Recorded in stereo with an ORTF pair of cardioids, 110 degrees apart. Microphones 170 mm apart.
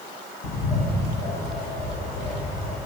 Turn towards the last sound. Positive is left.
turn(degrees=65)